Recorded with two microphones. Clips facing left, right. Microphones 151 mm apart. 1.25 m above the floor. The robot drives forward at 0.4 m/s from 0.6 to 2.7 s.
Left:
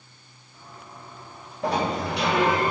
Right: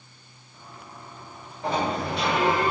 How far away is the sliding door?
About 2.5 m.